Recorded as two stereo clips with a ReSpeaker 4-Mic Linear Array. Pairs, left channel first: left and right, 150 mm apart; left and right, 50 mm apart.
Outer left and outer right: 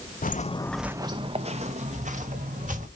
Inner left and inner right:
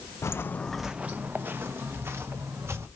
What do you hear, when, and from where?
0.2 s footsteps: 65° left (ahead or behind), 0.8 m; by 2.9 s 60° right (ahead or behind), 3 m